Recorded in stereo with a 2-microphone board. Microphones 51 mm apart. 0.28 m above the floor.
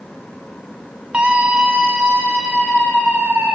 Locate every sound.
1.1 s a scream: 25° right (ahead or behind), 1.9 m; by 3.5 s 40° right (ahead or behind), 5.5 m